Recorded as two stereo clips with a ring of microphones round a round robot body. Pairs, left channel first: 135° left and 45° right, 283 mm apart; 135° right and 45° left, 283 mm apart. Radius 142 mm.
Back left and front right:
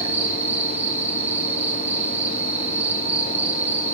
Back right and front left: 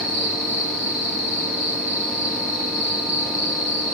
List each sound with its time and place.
0.0 s an insect: 40° left, 9 m